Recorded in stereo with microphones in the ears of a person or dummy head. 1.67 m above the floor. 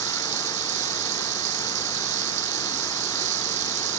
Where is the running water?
45° right (ahead or behind).